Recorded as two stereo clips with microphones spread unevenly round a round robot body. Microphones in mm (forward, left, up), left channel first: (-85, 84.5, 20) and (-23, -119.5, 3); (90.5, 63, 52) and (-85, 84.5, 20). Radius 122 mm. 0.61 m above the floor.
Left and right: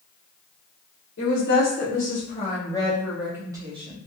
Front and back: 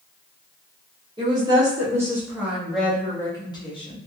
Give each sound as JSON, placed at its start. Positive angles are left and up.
{"t": 1.2, "sound": "a woman speaking", "azimuth_deg": 125, "distance_m": 1.3}